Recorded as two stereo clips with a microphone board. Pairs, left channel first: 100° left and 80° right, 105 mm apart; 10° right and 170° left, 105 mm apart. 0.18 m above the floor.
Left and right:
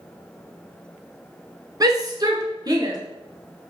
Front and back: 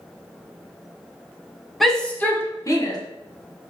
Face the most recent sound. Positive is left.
turn(degrees=-45)